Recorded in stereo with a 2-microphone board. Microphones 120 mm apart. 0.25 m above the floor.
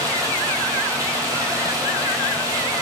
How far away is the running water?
About 1.0 m.